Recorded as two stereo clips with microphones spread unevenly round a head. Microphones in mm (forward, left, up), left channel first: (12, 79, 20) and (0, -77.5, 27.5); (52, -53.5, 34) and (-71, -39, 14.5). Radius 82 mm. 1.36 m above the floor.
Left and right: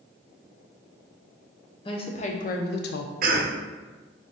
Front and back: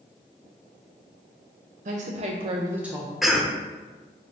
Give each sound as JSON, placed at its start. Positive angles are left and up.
{"t": 1.9, "sound": "a woman speaking", "azimuth_deg": 145, "distance_m": 0.8}
{"t": 3.2, "sound": "a cough", "azimuth_deg": -105, "distance_m": 0.7}